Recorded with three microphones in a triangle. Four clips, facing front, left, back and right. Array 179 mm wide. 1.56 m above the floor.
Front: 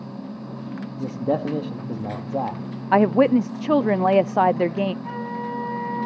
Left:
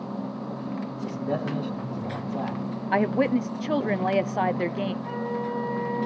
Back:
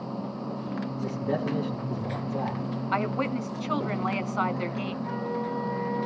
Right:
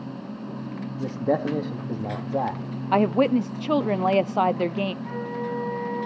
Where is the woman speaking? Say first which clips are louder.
Right 3 dB, front 13 dB; 15° right, 0.5 m.